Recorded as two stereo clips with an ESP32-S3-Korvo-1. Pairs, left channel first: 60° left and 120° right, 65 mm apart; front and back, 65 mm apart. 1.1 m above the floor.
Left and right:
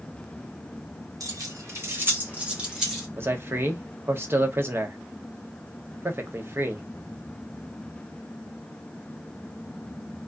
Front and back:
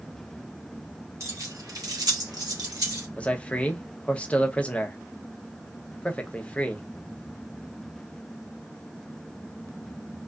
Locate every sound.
1.2 s keys jangling: 140° right, 0.9 m; by 3.1 s 150° left, 1.2 m
3.2 s a man speaking: 70° right, 0.6 m